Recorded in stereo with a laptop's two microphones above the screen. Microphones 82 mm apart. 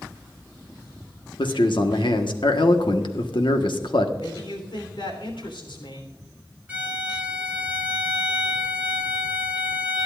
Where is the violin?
20° right (ahead or behind), 1.5 m.